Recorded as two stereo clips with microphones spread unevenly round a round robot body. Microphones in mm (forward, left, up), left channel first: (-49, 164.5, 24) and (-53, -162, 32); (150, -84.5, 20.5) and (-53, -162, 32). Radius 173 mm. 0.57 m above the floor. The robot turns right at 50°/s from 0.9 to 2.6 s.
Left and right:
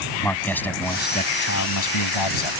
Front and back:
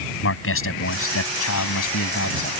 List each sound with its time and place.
0.2 s a man speaking: 5° left; by 2.5 s 85° left